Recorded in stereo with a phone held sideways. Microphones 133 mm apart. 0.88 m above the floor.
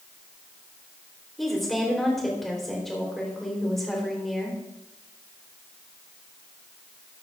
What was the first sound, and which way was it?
A woman speaking, centre (ahead or behind).